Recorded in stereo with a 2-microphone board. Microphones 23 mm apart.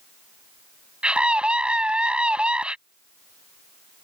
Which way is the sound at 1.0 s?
55° right (ahead or behind).